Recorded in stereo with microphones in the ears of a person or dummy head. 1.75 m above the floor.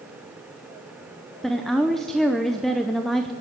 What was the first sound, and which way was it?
A woman speaking, centre (ahead or behind).